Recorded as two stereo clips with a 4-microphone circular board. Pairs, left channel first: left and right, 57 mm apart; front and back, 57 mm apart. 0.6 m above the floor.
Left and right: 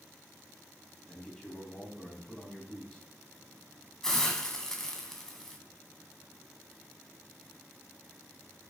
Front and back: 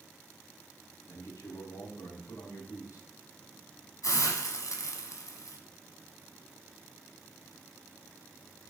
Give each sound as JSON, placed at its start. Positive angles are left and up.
{"t": 1.1, "sound": "a man speaking", "azimuth_deg": 10, "distance_m": 4.0}
{"t": 4.0, "sound": "a hiss", "azimuth_deg": 5, "distance_m": 1.9}